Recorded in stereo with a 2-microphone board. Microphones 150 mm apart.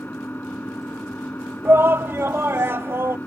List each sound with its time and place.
0.0 s an engine running: 10° left (ahead or behind)
1.6 s a shout: 15° right (ahead or behind)